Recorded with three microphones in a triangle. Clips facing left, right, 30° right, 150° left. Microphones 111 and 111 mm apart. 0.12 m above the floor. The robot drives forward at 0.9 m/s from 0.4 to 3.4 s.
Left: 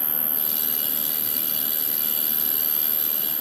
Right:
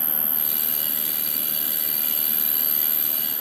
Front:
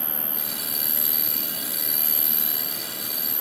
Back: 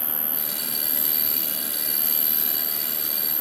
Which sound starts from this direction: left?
An insect, at 0.0 s.